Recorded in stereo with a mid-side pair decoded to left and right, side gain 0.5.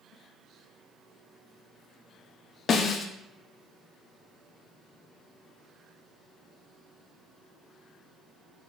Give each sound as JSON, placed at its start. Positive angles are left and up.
{"t": 2.7, "sound": "a snare drum", "azimuth_deg": 50, "distance_m": 0.6}